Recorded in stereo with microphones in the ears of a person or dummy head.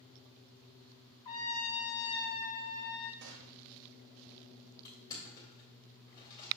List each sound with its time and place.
1.2 s a trumpet: 25° left (ahead or behind), 1.7 m
3.2 s a gunshot: 80° right, 0.8 m
4.8 s crushing: 25° left (ahead or behind), 2.5 m